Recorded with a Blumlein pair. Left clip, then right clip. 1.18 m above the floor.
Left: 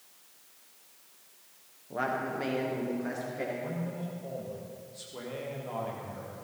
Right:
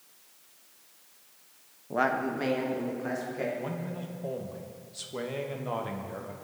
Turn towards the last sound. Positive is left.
turn(degrees=-65)